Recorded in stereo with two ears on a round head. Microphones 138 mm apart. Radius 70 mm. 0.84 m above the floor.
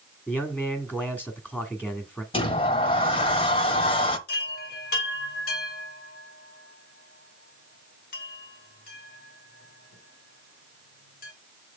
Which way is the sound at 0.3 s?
10° left (ahead or behind).